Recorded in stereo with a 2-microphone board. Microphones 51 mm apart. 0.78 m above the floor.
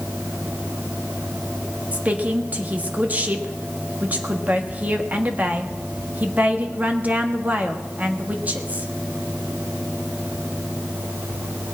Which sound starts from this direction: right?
A woman speaking, at 1.9 s.